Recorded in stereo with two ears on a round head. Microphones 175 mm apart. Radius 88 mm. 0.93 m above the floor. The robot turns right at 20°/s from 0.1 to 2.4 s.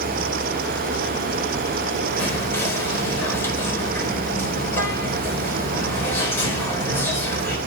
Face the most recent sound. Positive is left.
turn(degrees=10)  # may be behind; listen again after turning